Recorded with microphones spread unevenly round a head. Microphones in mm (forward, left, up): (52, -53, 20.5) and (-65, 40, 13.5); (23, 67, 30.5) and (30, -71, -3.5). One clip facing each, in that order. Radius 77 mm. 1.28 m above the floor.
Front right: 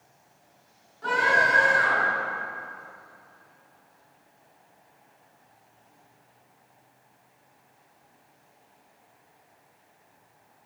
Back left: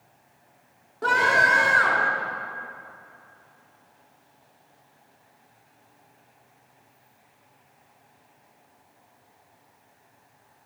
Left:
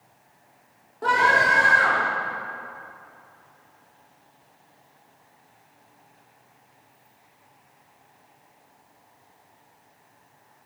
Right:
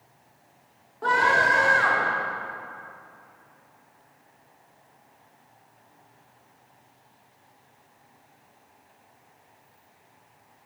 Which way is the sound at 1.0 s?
165° left.